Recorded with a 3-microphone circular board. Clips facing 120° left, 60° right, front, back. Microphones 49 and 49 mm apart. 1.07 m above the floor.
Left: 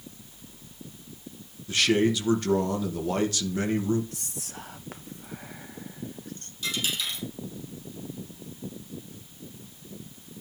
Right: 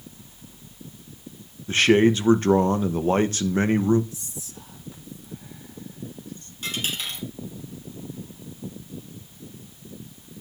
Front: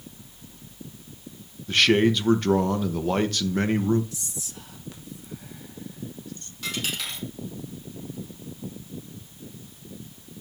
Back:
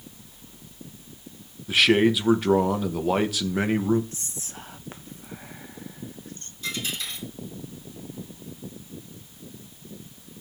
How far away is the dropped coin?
About 4.5 m.